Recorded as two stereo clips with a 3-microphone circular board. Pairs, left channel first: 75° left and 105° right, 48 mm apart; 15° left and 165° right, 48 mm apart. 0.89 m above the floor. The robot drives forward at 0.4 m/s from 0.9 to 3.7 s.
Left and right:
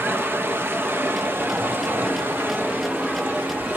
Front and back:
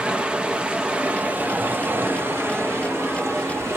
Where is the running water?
105° right, 0.8 m; by 3.8 s 155° right, 1.5 m.